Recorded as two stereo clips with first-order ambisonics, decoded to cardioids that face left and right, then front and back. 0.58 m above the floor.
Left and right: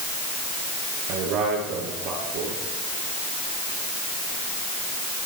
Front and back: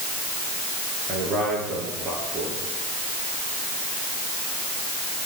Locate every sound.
1.1 s a man speaking: 125° right, 9.5 m